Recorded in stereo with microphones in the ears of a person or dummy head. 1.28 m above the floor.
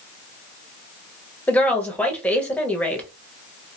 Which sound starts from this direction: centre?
A woman speaking, at 1.5 s.